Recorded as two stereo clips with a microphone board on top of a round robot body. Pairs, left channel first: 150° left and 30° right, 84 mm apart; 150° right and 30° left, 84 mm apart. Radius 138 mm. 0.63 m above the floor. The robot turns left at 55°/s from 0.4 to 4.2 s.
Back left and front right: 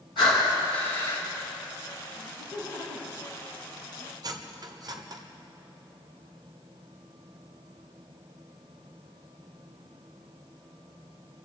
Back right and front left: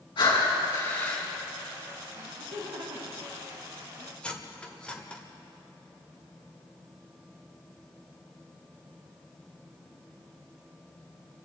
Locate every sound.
0.2 s breathing: 175° left, 5 m; by 1.2 s 130° left, 5 m
2.1 s laughter: 60° left, 8 m; by 4.1 s 50° right, 8 m
4.2 s cutlery clinking: 70° right, 1.5 m